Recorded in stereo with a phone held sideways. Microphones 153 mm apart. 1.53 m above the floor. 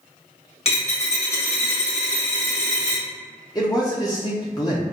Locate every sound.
0.7 s a dropped coin: 40° left (ahead or behind), 1.6 m
3.5 s a man speaking: 25° left (ahead or behind), 0.5 m